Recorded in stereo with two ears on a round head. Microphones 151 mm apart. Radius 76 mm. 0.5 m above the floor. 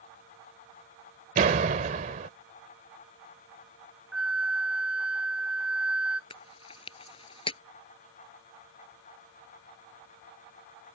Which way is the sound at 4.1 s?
5° right (ahead or behind).